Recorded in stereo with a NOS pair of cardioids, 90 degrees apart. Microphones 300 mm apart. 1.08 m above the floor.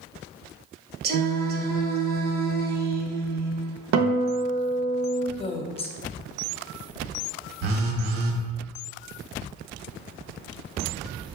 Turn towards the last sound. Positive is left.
turn(degrees=-60)